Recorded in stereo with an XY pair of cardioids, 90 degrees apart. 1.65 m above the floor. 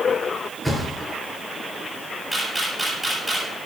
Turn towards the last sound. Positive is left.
turn(degrees=-10)